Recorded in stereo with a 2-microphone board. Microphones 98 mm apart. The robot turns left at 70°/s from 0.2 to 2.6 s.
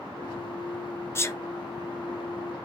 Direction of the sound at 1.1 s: 25° left (ahead or behind).